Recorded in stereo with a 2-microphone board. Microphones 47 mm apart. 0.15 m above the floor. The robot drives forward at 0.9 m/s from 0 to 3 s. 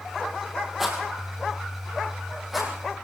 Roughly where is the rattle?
Centre.